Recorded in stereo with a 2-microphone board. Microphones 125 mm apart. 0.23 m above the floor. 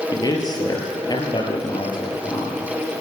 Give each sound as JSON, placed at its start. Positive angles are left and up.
{"t": 0.1, "sound": "a man speaking", "side_deg": 35, "distance_m": 5.0}